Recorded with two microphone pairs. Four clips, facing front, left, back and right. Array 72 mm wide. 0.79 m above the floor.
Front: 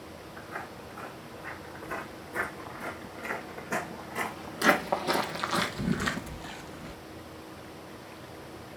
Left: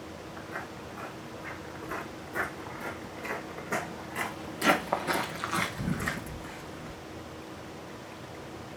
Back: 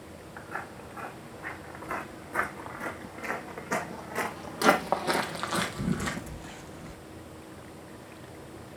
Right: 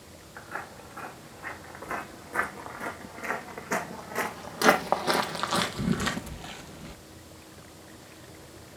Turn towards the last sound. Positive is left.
turn(degrees=-45)